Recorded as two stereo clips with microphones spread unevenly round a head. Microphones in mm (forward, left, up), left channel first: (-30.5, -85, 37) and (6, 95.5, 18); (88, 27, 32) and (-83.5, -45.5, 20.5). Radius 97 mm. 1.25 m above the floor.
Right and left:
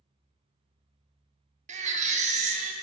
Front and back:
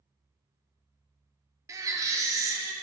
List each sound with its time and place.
1.7 s a baby crying: 130° left, 0.8 m